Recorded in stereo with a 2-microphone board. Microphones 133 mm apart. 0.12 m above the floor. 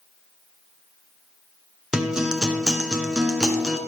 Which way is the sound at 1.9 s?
5° right (ahead or behind).